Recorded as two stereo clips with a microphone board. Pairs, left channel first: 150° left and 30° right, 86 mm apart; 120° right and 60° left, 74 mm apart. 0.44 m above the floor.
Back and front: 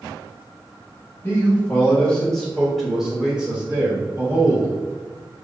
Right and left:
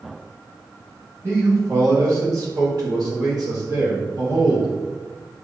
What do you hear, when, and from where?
1.2 s a man speaking: 90° left, 1.7 m; by 4.7 s 30° left, 2.5 m